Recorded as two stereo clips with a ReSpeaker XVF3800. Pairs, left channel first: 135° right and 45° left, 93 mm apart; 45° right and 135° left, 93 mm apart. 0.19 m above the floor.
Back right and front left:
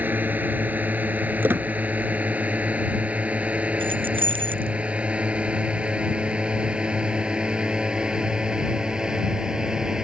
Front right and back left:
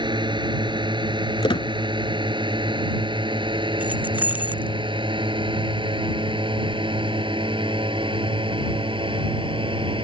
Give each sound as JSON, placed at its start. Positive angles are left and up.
{"t": 0.0, "sound": "a drone", "azimuth_deg": 115}
{"t": 1.4, "sound": "a squeak", "azimuth_deg": -20}
{"t": 3.8, "sound": "keys jangling", "azimuth_deg": 60}